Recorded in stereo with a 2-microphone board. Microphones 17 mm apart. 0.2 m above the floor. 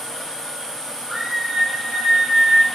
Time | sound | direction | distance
1.1 | a scream | 25° right (ahead or behind) | 4.5 m